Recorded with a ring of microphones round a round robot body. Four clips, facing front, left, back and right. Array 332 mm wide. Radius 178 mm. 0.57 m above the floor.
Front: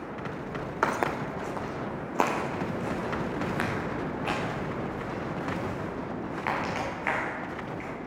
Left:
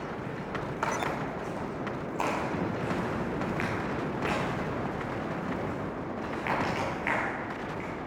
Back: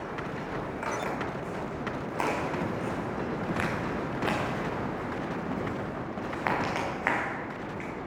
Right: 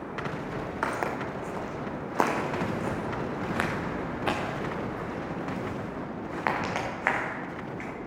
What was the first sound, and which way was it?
Footsteps, 10° right.